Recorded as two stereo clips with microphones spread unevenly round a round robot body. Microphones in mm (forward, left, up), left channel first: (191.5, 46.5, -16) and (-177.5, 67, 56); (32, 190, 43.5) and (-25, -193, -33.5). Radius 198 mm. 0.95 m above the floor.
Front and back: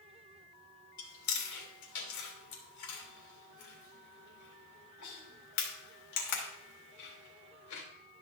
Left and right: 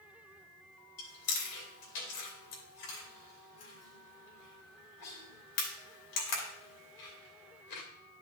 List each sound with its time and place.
1.0 s chewing: 40° left, 2.5 m